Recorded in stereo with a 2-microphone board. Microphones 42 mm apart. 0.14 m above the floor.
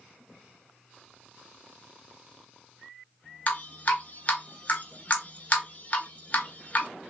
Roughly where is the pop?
No pop in this recording.